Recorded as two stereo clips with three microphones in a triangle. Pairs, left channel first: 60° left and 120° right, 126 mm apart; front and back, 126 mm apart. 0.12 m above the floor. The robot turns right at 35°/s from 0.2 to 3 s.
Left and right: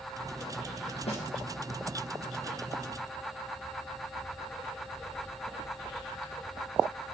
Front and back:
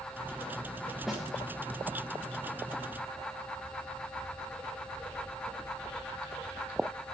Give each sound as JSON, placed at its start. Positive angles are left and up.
{"t": 1.1, "sound": "a snare drum", "azimuth_deg": 90, "distance_m": 3.5}